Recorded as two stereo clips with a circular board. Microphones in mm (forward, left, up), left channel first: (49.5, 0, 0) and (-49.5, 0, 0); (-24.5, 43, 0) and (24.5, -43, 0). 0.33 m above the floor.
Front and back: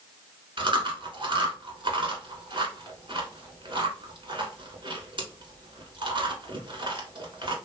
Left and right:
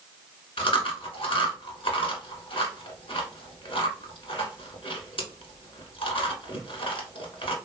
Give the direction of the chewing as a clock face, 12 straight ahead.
7 o'clock.